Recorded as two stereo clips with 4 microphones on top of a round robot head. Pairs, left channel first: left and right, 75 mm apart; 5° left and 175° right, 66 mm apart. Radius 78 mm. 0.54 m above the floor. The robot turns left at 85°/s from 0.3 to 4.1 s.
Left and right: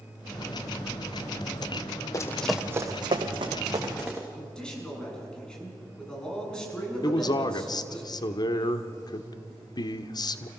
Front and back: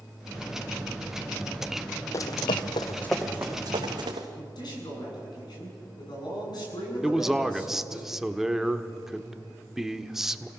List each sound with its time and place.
2.1 s running footsteps: 50° left, 1.5 m; by 4.3 s 175° left, 3 m
4.4 s a man speaking: 10° left, 7 m
7.0 s a man speaking: 100° left, 1.3 m